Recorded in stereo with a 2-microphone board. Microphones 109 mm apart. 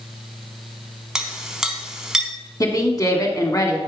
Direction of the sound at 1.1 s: 5° right (ahead or behind).